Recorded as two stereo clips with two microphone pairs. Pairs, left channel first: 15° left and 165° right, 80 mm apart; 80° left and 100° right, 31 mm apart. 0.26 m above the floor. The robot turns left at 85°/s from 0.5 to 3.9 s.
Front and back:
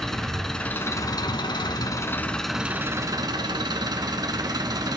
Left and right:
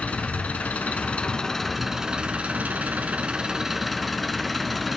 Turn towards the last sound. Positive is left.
turn(degrees=170)